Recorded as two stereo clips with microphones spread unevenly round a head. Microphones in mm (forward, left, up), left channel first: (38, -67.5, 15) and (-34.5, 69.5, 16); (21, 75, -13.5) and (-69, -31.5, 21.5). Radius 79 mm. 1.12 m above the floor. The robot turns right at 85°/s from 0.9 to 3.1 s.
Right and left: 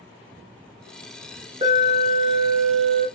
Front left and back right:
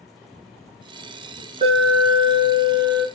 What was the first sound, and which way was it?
An alarm, 175° left.